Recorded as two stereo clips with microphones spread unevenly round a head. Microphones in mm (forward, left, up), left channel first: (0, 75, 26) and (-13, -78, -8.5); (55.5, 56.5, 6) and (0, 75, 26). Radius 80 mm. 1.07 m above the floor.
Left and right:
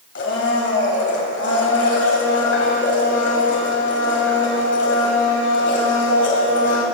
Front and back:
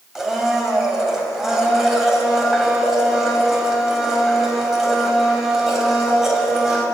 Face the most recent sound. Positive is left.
turn(degrees=85)